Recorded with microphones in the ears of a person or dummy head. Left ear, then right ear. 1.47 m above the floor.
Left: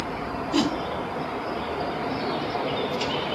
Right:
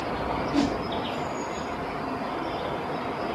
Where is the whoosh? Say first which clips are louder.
Left 3 dB; 25° left (ahead or behind), 2.0 m.